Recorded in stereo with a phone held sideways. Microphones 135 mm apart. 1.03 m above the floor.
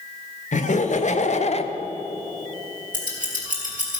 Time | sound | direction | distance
0.5 | laughter | 65° left (ahead or behind) | 1.4 m
2.9 | scissors | 65° right (ahead or behind) | 4 m